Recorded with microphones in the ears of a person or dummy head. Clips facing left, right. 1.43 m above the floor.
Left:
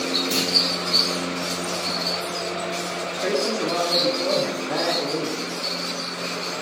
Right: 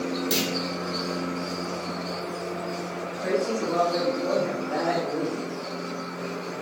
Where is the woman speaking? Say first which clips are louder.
Left 2 dB; 85° left, 0.7 m.